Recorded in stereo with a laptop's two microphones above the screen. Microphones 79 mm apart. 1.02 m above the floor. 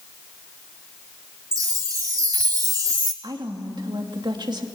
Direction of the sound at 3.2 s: 65° right (ahead or behind).